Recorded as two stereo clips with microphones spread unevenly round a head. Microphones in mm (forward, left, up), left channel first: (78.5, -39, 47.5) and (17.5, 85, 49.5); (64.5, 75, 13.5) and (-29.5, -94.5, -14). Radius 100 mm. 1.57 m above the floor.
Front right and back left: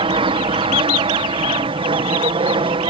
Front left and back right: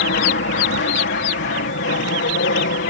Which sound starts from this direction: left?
An aircraft, at 0.0 s.